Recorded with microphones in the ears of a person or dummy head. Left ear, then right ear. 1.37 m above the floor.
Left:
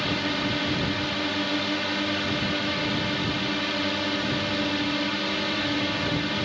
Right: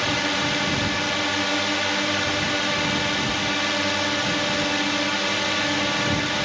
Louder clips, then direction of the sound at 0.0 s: Right 4 dB; 35° right (ahead or behind).